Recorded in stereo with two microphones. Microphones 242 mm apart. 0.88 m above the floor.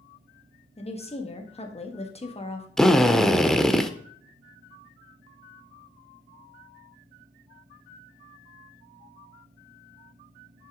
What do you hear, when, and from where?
0.8 s a woman speaking: 25° left (ahead or behind), 1.6 m
2.8 s a drill: centre (ahead or behind), 0.8 m